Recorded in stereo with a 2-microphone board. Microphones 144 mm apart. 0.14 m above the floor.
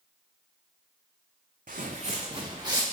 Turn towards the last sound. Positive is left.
turn(degrees=-25)  # may be behind; listen again after turning